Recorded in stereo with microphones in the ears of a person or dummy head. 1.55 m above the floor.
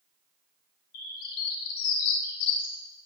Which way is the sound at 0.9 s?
55° left (ahead or behind).